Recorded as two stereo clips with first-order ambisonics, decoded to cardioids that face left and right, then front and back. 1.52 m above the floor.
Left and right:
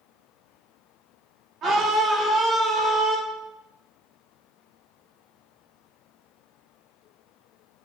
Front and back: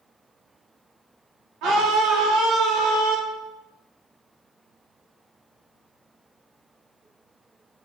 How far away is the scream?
About 2.0 m.